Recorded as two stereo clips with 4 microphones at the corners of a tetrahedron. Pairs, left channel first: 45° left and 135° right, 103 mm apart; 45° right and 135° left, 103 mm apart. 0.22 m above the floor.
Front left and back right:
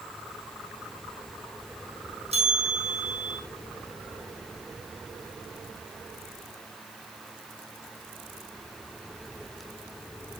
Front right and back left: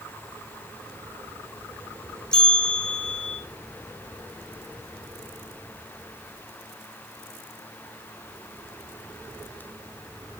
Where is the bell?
130° right, 3.5 m.